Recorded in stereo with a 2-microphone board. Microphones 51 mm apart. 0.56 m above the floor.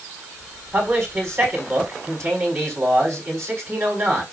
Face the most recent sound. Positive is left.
turn(degrees=-55)  # may be behind; listen again after turning